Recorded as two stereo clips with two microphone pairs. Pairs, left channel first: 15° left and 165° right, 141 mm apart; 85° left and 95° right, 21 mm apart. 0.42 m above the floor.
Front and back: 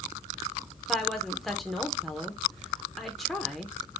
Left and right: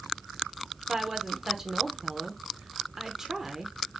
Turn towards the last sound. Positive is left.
turn(degrees=-75)